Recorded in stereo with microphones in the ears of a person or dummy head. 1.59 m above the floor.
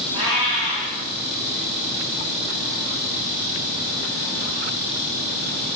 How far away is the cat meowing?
About 2 m.